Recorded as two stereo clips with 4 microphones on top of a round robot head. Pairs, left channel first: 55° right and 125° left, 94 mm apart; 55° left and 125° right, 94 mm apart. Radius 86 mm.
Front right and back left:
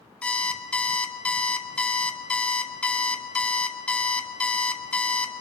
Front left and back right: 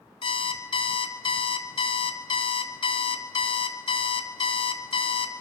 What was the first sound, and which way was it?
An alarm clock, 25° left.